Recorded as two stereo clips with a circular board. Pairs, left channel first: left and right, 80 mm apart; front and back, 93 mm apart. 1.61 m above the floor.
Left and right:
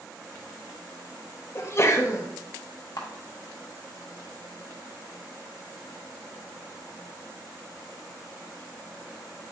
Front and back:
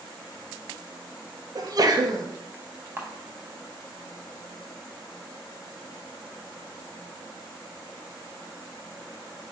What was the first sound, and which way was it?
A sneeze, 140° left.